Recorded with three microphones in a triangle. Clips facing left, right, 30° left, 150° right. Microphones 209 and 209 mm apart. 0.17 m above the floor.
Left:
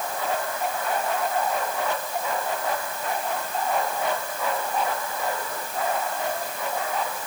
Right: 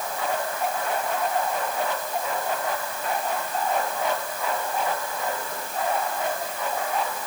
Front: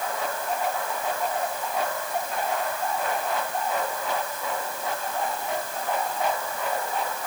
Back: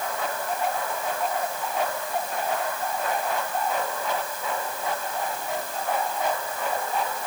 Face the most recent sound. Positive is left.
No sound to turn to.